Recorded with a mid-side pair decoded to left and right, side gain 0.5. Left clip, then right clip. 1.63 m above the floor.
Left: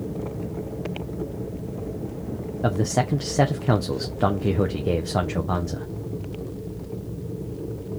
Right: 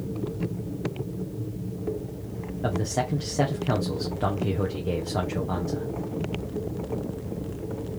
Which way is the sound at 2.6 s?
35° left.